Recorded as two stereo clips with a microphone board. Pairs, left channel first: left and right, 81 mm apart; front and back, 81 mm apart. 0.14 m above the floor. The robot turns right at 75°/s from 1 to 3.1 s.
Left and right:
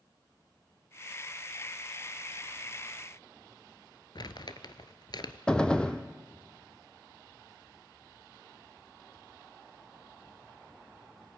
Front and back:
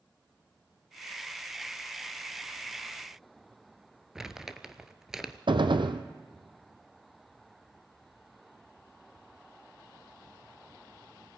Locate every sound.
4.2 s crumpling: 100° left, 1.2 m
5.5 s a gunshot: 170° left, 1.4 m